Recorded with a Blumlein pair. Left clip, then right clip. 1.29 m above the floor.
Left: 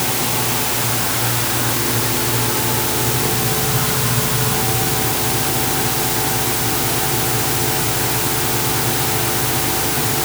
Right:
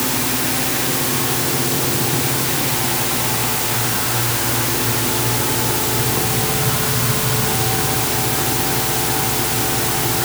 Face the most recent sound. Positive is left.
No sound to turn to.